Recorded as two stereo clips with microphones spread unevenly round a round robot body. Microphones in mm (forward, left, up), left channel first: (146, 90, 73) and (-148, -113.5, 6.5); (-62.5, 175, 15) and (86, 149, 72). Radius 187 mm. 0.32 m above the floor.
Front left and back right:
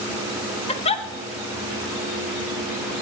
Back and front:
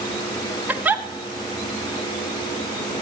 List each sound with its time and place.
0.7 s a giggle: 110° left, 1.3 m